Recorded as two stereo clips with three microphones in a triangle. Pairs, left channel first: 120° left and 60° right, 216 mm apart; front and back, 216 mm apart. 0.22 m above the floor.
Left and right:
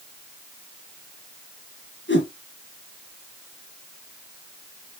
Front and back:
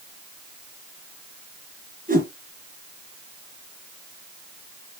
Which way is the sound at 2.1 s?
135° left.